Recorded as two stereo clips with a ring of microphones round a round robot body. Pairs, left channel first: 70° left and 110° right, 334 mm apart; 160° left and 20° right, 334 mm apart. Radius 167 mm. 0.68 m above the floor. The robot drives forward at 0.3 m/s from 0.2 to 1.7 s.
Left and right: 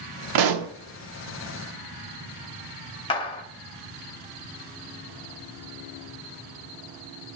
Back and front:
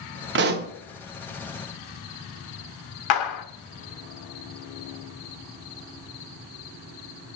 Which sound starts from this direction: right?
A pop, at 0.3 s.